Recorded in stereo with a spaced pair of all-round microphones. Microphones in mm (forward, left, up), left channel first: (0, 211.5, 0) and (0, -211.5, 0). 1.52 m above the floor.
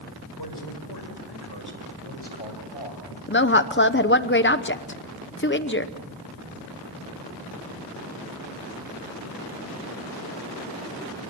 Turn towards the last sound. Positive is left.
turn(degrees=25)  # may be behind; listen again after turning